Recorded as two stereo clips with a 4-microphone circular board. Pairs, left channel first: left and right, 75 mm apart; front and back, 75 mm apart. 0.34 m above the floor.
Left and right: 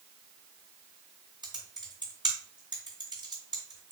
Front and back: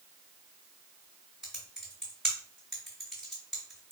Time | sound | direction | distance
1.4 | typing on a keyboard | 85° right | 2 m